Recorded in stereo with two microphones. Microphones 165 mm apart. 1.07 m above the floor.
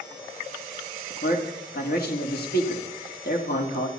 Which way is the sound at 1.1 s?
75° left (ahead or behind).